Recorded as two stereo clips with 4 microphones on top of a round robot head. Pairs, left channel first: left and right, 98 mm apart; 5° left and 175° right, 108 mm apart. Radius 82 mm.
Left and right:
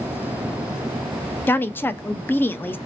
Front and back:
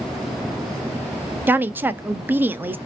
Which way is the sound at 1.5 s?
135° left.